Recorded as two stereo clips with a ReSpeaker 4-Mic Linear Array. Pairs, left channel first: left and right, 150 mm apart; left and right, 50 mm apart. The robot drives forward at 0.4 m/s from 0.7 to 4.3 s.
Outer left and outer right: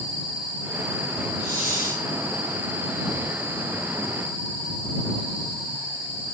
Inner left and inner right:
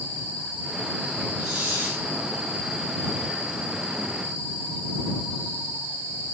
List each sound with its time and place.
1.4 s a hiss: 20° right (ahead or behind), 7 m